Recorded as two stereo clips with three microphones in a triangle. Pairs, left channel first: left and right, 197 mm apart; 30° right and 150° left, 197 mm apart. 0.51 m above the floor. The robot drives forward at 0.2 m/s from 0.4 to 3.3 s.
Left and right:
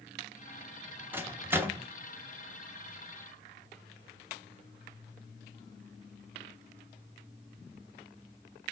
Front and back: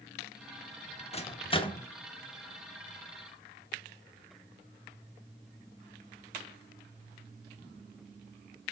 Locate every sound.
1.1 s a microwave: 20° right, 0.6 m; by 1.9 s 30° right, 0.6 m